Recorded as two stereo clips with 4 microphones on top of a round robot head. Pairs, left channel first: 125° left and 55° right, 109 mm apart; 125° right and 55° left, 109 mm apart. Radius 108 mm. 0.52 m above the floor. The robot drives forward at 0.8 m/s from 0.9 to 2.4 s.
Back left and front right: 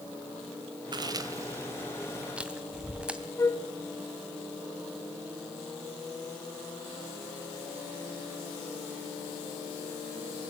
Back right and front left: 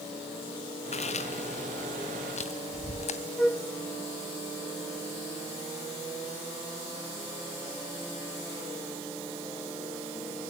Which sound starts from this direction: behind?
A flute, at 3.4 s.